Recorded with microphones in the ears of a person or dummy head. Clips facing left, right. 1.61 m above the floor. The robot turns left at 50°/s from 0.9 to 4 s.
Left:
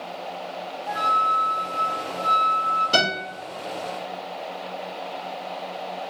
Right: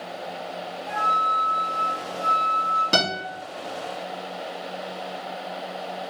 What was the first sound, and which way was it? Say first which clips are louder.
A flute: left 1 dB; 45° left.